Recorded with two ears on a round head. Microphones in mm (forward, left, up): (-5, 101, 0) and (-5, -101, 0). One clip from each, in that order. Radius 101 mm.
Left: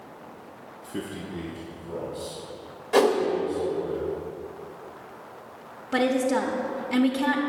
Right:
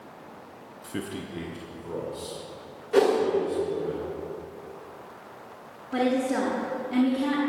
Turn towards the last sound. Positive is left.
turn(degrees=35)  # may be behind; listen again after turning